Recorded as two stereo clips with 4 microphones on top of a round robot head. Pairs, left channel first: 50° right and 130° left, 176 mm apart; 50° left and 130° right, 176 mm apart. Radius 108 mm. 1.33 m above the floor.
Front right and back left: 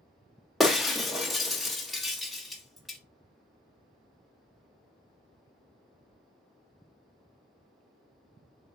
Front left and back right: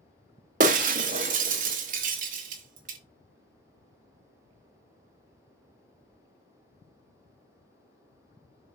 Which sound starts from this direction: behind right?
Breaking glass, at 0.6 s.